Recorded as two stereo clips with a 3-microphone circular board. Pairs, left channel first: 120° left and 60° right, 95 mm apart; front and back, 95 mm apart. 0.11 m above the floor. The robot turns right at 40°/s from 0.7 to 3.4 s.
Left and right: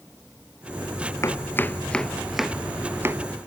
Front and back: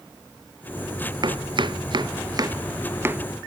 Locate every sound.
1.2 s chopping: 170° left, 0.5 m; by 3.2 s 115° right, 0.5 m